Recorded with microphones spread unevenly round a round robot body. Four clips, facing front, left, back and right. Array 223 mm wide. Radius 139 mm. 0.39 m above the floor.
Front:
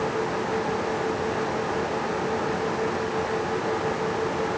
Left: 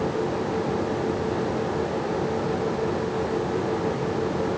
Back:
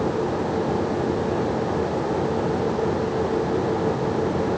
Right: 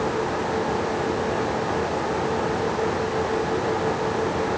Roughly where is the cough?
No cough in this recording.